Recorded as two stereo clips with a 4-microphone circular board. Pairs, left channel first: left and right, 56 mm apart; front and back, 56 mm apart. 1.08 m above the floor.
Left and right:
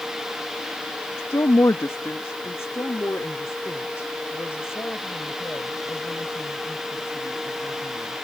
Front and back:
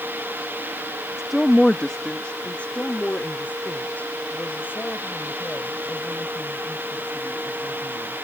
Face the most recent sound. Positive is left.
turn(degrees=50)